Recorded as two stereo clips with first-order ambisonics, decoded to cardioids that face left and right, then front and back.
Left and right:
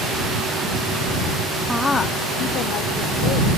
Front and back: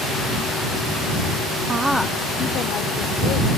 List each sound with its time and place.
1.7 s a woman speaking: 160° right; by 3.5 s 50° left